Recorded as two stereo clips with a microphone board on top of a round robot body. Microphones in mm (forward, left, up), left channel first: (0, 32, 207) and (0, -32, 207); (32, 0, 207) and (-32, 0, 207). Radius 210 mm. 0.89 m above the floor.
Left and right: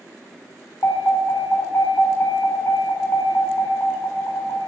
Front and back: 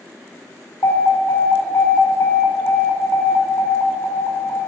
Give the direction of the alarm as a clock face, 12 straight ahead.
11 o'clock.